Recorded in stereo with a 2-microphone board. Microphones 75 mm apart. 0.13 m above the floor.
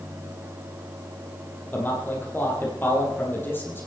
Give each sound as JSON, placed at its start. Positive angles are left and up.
{"t": 1.7, "sound": "a man speaking", "side_deg": 25, "distance_m": 4.0}